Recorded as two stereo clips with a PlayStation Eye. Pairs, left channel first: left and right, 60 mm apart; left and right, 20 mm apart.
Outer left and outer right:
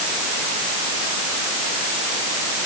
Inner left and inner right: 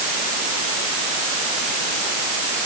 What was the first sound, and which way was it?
Only background noise.